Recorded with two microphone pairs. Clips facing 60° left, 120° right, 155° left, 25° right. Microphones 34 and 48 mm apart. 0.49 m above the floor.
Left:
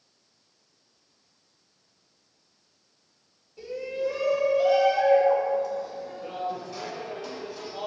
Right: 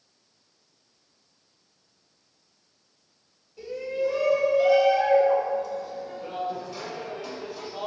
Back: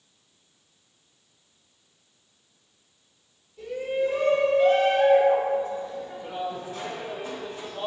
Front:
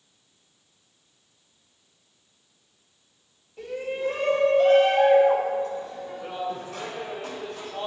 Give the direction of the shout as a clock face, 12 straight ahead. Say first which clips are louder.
Right 2 dB, back 3 dB; 1 o'clock.